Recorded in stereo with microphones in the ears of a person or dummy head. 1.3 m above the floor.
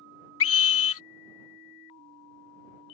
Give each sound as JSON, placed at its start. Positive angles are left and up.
{"t": 0.4, "sound": "a scream", "side_deg": 75}